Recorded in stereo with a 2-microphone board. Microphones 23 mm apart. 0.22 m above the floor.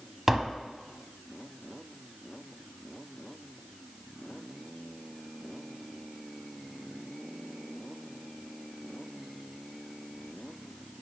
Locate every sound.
0.3 s tapping: 20° right (ahead or behind), 0.6 m